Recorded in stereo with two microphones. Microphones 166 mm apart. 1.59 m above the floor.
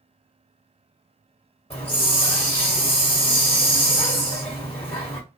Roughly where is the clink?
No clink in this recording.